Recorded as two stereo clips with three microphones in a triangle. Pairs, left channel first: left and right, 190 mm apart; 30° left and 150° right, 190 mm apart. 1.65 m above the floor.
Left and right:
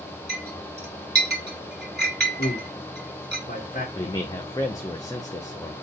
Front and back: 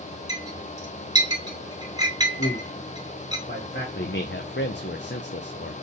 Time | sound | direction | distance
0.3 | a clink | 85° right | 2.5 m
2.4 | a man speaking | 50° left | 1.9 m
4.0 | a man speaking | 20° left | 0.6 m